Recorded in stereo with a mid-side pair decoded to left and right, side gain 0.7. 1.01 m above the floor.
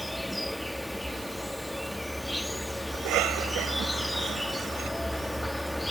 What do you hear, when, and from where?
0.0 s an insect: 5° left
2.9 s a cough: 60° right